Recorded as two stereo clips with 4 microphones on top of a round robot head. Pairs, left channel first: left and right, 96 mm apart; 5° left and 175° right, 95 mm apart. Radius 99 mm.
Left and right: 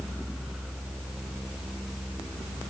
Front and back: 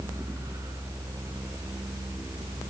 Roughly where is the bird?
I don't hear a bird.